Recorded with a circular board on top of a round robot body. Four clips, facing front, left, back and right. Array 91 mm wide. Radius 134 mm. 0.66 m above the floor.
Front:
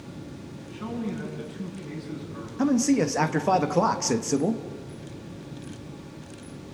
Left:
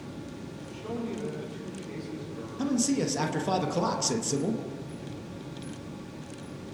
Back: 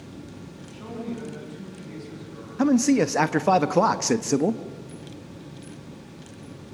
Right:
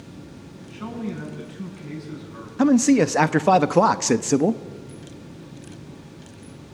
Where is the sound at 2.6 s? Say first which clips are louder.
Right 11 dB, back 3 dB; 110° right, 1.2 m.